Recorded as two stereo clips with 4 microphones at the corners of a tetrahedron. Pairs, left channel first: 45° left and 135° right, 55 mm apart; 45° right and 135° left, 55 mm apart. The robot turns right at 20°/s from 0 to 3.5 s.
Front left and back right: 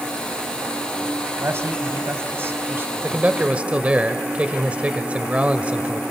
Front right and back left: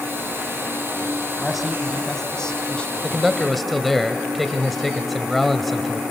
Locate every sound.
1.4 s a man speaking: 140° right, 1.7 m; by 3.2 s 105° right, 1.7 m
3.0 s a man speaking: 140° right, 1.1 m; by 6.0 s 130° right, 1.1 m